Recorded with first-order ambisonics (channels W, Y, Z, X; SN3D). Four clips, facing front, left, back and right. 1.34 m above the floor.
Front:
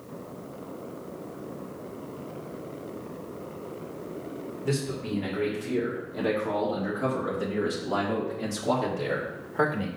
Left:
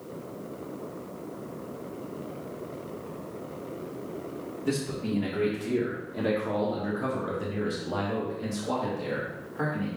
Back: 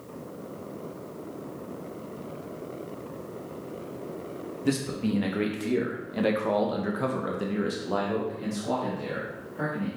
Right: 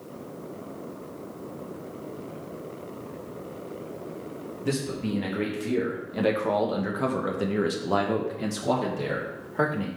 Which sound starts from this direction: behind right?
A man speaking, at 4.6 s.